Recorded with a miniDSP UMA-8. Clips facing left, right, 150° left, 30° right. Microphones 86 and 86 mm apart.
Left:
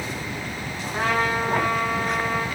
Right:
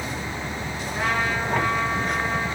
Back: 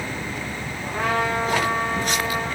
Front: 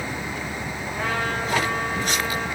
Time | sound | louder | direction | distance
0.8 | a trumpet | left 2 dB, back 4 dB | 135° left | 6 m